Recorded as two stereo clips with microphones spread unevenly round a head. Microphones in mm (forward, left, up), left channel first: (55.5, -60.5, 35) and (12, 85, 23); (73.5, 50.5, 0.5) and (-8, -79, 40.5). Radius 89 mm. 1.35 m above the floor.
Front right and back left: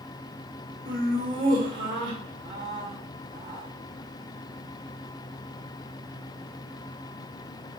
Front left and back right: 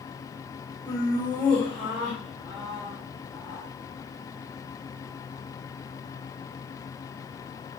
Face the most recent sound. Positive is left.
turn(degrees=140)